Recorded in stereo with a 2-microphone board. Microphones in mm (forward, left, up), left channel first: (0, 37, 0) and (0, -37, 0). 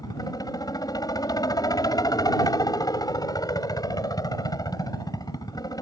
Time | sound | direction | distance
0.0 | a helicopter | 55° left (ahead or behind) | ?